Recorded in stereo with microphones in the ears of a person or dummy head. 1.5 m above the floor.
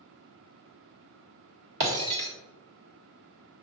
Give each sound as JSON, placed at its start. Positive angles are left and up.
{"t": 1.8, "sound": "breaking glass", "side_deg": -55, "distance_m": 1.9}